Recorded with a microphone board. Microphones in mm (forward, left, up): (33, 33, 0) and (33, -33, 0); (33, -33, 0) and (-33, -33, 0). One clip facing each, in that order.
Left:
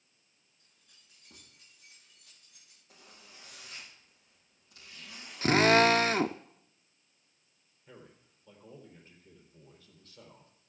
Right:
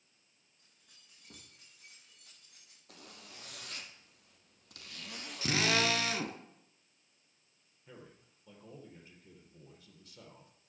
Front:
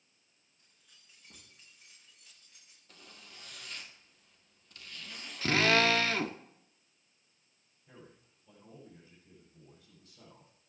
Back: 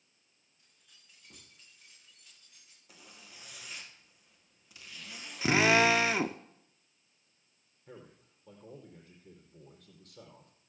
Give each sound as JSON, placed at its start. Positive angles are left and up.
{"t": 0.6, "sound": "keys jangling", "azimuth_deg": -90, "distance_m": 7.5}
{"t": 2.9, "sound": "a zipper", "azimuth_deg": -100, "distance_m": 1.9}
{"t": 5.4, "sound": "a drill", "azimuth_deg": 110, "distance_m": 0.6}
{"t": 7.9, "sound": "a man speaking", "azimuth_deg": -170, "distance_m": 4.5}